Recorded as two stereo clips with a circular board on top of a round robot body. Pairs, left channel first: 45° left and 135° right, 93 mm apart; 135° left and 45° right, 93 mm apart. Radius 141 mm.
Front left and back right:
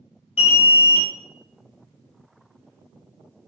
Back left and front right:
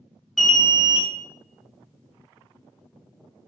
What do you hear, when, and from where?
0.4 s an alarm: 50° left, 0.6 m